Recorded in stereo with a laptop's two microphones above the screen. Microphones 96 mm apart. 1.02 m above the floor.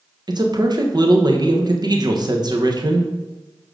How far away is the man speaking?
About 1.0 m.